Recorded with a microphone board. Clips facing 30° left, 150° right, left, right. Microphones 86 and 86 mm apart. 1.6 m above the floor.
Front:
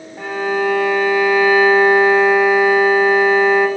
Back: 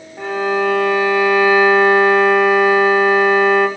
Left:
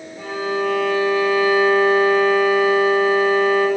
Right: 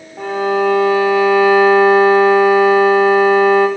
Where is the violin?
65° right, 0.8 m.